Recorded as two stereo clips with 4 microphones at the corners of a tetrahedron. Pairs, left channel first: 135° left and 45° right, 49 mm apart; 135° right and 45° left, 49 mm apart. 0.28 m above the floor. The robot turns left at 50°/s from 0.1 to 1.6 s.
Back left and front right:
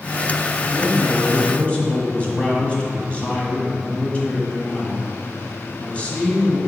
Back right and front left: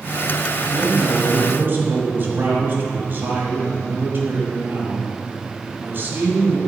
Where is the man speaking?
120° left, 1.6 m; by 6.6 s 75° left, 1.6 m.